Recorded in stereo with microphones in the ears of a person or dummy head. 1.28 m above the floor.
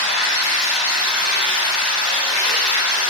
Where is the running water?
75° left (ahead or behind), 1.3 m.